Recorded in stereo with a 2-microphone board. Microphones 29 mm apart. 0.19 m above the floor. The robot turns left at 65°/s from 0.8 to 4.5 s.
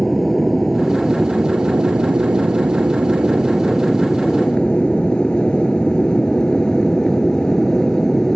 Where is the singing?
I don't hear singing.